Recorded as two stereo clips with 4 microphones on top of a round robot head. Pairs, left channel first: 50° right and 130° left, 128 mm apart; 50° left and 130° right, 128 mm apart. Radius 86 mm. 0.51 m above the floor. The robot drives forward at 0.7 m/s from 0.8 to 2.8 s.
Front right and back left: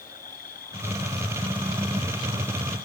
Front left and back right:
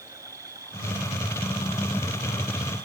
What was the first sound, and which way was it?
An insect, 65° right.